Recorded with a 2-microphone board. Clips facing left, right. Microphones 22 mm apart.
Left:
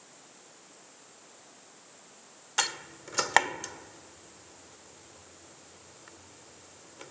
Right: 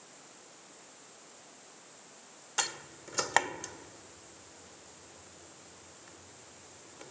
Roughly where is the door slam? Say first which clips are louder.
Left 4 dB; left.